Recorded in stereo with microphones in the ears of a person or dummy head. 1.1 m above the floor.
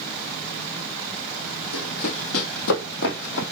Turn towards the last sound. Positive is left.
turn(degrees=60)  # may be behind; listen again after turning